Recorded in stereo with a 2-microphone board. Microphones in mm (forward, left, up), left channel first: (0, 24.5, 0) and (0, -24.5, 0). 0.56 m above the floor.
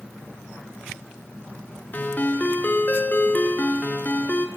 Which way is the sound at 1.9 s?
40° left (ahead or behind).